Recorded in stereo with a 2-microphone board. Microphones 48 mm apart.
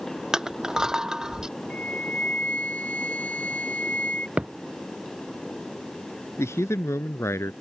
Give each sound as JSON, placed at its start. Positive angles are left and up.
{"t": 0.3, "sound": "crushing", "side_deg": -15}
{"t": 1.7, "sound": "a flute", "side_deg": 30}
{"t": 4.4, "sound": "a thud", "side_deg": -30}
{"t": 6.4, "sound": "a man speaking", "side_deg": 80}